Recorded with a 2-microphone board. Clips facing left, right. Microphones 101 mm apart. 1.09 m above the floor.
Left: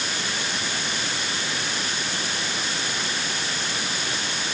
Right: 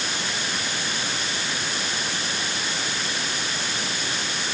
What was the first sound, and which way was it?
Only background noise.